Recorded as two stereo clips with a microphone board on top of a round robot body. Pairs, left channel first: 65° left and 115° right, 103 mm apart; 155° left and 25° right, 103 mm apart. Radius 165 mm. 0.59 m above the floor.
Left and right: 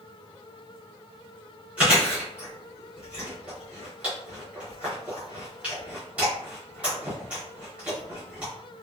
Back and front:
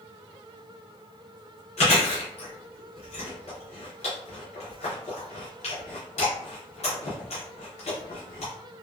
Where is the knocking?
No knocking in this recording.